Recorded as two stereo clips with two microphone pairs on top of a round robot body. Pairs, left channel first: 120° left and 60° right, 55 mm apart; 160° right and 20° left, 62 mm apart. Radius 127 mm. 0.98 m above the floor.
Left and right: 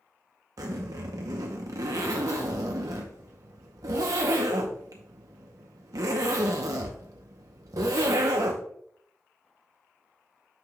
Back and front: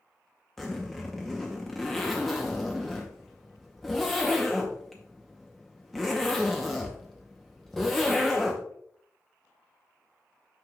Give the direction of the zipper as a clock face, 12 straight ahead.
2 o'clock.